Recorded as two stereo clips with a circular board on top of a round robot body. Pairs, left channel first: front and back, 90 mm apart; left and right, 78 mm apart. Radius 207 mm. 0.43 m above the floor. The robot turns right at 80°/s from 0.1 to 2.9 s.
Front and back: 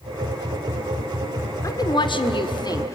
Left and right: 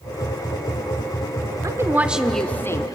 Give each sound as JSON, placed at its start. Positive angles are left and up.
{"t": 1.6, "sound": "a woman speaking", "azimuth_deg": -50, "distance_m": 1.7}